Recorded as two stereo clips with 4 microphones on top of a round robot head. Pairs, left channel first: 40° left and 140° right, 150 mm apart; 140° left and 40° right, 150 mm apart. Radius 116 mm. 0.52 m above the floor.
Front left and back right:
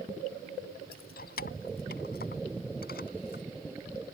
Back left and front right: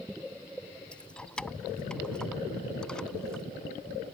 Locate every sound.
0.9 s keys jangling: 60° left; by 3.4 s 55° left